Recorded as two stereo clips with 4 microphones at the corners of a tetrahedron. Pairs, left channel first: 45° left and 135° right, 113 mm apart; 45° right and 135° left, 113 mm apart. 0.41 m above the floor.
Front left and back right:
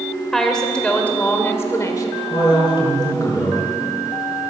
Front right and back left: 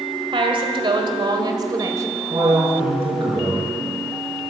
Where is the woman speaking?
130° left, 2 m; by 2.1 s 90° left, 1.8 m.